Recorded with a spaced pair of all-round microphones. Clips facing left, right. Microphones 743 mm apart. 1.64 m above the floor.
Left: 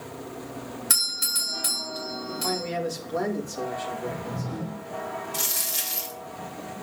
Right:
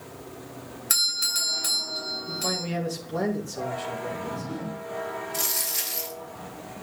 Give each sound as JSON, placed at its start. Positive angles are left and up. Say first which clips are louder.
{"t": 0.9, "sound": "a doorbell", "louder": "left 4 dB", "side_deg": 35, "distance_m": 1.7}
{"t": 2.3, "sound": "a man speaking", "louder": "left 1 dB", "side_deg": -55, "distance_m": 2.5}
{"t": 4.0, "sound": "a whoosh", "louder": "left 1 dB", "side_deg": 85, "distance_m": 7.0}
{"t": 5.3, "sound": "a dropped coin", "louder": "right 1 dB", "side_deg": 60, "distance_m": 2.0}